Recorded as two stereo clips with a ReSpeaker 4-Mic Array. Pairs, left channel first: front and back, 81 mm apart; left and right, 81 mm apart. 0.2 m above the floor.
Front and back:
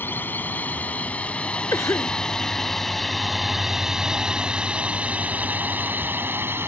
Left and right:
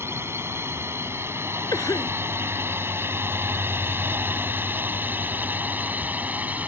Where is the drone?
50° right; by 6.7 s 145° right.